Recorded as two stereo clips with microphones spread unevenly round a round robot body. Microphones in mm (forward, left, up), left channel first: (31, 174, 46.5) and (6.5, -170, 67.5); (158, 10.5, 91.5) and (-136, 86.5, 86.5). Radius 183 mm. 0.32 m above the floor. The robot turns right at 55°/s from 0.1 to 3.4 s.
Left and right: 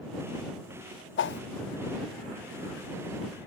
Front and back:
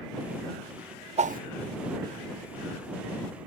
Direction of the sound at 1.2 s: 110° left.